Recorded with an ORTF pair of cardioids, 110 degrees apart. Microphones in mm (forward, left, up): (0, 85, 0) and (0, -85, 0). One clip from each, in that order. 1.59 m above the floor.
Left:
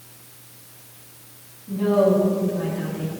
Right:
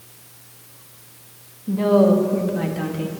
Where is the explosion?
No explosion in this recording.